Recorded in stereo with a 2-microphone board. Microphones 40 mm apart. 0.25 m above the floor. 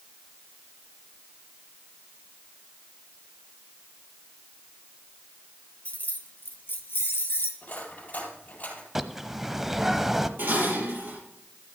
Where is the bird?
5° right (ahead or behind), 0.7 m.